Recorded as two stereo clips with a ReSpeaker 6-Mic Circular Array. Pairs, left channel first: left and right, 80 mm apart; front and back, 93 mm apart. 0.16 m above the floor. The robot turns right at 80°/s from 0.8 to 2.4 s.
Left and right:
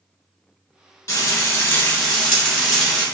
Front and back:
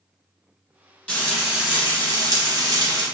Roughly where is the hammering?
No hammering in this recording.